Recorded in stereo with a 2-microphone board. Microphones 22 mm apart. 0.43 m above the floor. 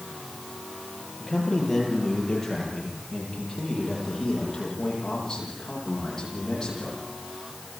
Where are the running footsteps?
I don't hear running footsteps.